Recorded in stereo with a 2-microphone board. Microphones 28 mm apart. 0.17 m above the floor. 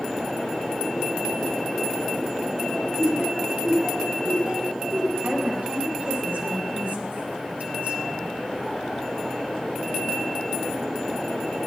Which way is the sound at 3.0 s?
35° right (ahead or behind).